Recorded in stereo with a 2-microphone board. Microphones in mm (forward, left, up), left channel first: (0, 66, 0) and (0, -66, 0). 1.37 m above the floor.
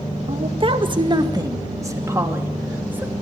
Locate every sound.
0.3 s a woman speaking: 50° right (ahead or behind), 1.7 m; by 3.1 s 10° right (ahead or behind), 3 m